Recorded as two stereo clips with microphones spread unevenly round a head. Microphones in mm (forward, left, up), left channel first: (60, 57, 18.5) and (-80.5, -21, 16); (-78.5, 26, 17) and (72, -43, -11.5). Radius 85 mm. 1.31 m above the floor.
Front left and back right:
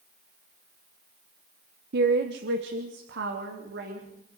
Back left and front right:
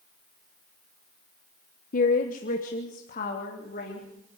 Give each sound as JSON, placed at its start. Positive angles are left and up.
{"t": 1.9, "sound": "a woman speaking", "azimuth_deg": -160, "distance_m": 1.1}